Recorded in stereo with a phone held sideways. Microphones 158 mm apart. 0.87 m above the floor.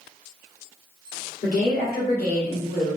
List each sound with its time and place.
1.4 s a woman speaking: 75° left (ahead or behind), 2.5 m; by 3.0 s 60° left (ahead or behind), 1.7 m